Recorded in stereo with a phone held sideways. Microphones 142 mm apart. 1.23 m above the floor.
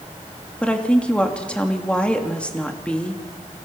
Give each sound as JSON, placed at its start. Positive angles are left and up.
{"t": 0.6, "sound": "a woman speaking", "side_deg": 10, "distance_m": 2.5}